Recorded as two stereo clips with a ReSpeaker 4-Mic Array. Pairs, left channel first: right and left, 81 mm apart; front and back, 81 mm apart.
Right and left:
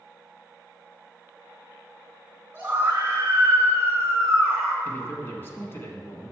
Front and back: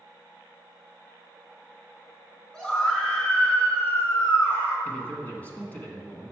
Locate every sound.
2.5 s a scream: 55° left, 1.8 m; by 4.8 s 45° left, 3 m
4.8 s a man speaking: 55° right, 1.3 m